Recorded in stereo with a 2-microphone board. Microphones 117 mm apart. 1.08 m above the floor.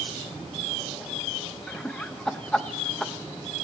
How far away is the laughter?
About 0.7 m.